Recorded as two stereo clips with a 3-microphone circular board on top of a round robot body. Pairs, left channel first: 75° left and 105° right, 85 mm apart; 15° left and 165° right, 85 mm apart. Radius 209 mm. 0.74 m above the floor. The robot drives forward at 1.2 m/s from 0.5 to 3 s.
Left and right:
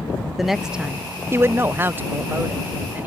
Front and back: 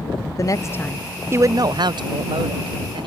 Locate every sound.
0.4 s a woman speaking: 20° right; by 3.1 s 175° right